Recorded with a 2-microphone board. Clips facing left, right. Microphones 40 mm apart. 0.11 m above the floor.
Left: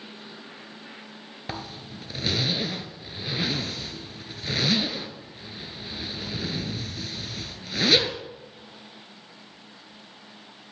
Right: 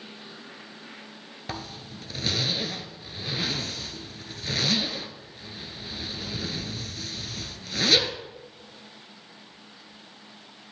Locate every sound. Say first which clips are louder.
1.5 s a zipper: left 1 dB; 10° left (ahead or behind), 0.6 m